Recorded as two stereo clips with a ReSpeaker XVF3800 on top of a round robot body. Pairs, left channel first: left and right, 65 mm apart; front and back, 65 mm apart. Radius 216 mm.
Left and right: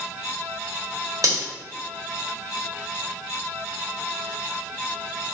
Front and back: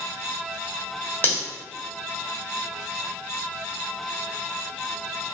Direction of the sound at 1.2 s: 60° right.